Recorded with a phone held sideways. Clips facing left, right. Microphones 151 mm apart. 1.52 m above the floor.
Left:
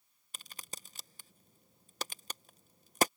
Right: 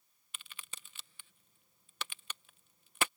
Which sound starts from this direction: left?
A crack, at 0.3 s.